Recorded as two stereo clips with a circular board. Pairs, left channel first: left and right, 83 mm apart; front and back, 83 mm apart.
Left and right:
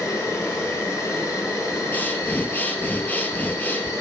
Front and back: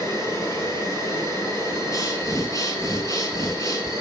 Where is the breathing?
30° left, 1.2 m.